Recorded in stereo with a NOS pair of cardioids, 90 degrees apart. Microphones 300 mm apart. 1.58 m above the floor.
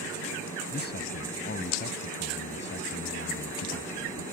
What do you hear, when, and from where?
0.7 s a man speaking: 35° left; by 4.2 s 40° left